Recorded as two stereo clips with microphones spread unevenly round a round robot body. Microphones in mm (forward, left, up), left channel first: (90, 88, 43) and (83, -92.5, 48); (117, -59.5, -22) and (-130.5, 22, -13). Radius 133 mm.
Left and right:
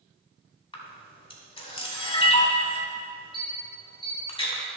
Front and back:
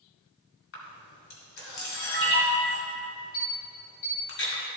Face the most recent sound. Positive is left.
turn(degrees=25)